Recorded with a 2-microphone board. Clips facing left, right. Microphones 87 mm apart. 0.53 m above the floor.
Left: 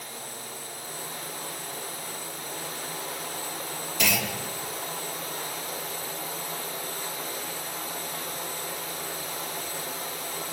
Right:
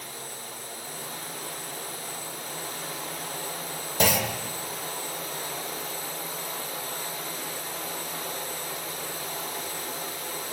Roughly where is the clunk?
Right.